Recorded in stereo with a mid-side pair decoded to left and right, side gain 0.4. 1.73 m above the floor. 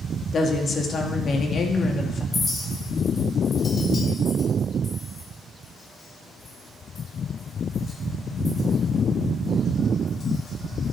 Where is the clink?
50° left, 3.5 m.